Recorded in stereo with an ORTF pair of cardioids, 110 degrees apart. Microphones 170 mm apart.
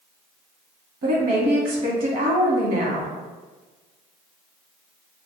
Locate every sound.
1.0 s a woman speaking: 60° right, 1.3 m